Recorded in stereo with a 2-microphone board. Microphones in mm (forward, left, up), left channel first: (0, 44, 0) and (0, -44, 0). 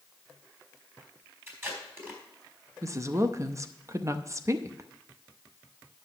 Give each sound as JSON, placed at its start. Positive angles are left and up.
{"t": 1.5, "sound": "tape being pulled", "side_deg": -25, "distance_m": 3.5}
{"t": 2.8, "sound": "a woman speaking", "side_deg": -35, "distance_m": 0.7}